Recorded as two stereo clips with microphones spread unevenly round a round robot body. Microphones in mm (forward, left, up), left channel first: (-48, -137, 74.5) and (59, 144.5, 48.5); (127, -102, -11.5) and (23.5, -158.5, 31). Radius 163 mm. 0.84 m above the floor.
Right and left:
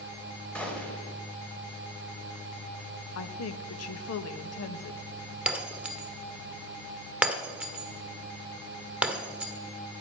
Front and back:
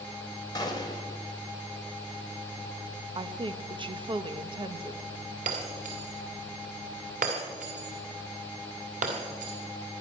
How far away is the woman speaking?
About 1.2 m.